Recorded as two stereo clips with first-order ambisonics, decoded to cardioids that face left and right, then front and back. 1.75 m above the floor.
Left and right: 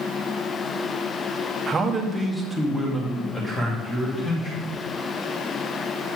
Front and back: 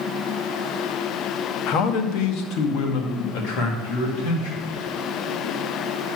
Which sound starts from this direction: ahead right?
A man speaking, at 1.7 s.